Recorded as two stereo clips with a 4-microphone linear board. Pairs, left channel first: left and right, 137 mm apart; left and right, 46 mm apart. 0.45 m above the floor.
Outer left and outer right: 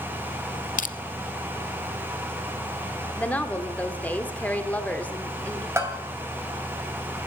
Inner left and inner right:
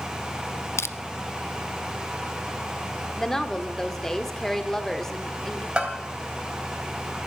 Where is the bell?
20° right (ahead or behind), 3 m.